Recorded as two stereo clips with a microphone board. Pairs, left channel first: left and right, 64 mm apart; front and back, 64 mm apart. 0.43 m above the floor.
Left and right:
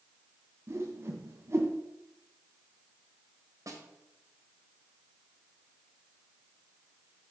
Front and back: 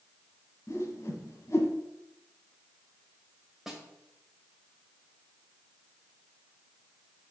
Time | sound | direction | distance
0.7 | a whoosh | 45° right | 1.5 m
3.7 | a snare drum | 95° right | 1.6 m